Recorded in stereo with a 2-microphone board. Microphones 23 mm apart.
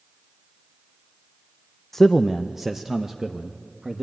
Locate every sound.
1.9 s a man speaking: 5° left (ahead or behind), 0.6 m; by 4.0 s 30° right (ahead or behind), 1.6 m